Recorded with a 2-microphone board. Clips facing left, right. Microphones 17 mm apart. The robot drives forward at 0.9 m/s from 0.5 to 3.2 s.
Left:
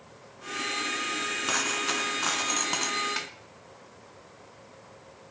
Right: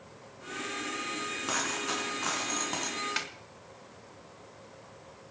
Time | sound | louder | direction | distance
1.5 | a dropped coin | left 3 dB | 20° left (ahead or behind) | 3 m
3.2 | a snare drum | even | centre (ahead or behind) | 1.2 m